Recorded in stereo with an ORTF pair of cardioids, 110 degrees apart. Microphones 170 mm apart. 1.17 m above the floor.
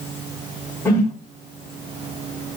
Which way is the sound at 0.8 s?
20° left.